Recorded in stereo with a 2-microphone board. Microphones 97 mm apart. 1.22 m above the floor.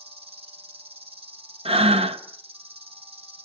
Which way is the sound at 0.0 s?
80° right.